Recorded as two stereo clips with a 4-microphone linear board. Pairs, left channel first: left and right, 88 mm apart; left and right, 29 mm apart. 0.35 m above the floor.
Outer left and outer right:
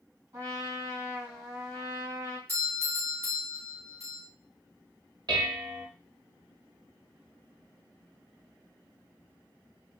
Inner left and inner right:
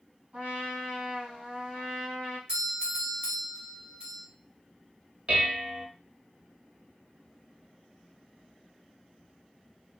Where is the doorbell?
35° right (ahead or behind), 2.5 m.